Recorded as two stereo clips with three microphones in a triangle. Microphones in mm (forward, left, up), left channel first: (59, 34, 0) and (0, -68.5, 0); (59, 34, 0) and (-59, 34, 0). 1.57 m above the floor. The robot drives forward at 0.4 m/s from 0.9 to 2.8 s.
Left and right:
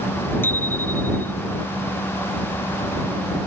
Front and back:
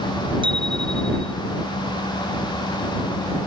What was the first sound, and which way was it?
A bicycle bell, 135° left.